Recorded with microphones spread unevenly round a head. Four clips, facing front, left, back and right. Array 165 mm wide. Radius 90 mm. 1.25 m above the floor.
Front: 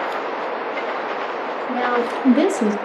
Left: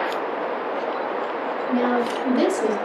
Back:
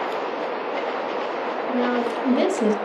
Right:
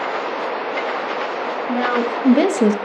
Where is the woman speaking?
45° right, 2 m; by 2.8 s 75° right, 1.2 m.